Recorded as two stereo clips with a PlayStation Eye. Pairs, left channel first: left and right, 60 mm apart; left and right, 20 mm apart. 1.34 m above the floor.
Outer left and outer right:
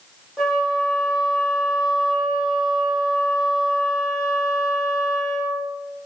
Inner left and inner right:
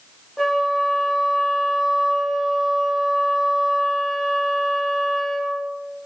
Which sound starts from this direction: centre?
A flute, at 0.4 s.